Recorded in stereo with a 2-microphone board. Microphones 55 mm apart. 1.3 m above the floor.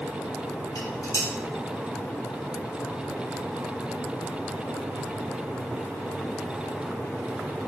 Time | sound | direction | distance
0.8 | dishes clattering | 80° left | 1.8 m